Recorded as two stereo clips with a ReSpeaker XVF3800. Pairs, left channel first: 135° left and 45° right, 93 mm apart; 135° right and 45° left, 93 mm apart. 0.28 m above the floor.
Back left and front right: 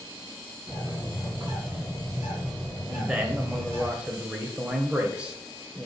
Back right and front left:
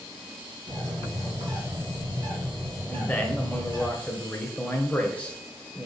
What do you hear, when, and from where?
0.7 s a bird: 20° left, 3 m
2.9 s a man speaking: 95° right, 0.9 m